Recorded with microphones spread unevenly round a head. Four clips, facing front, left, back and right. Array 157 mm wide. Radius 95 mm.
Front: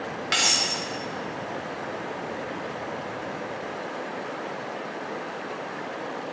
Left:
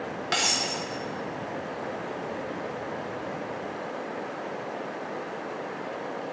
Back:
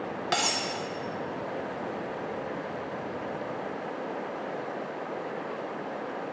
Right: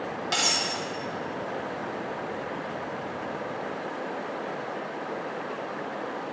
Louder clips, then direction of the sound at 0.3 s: Left 1 dB, even; 160° left.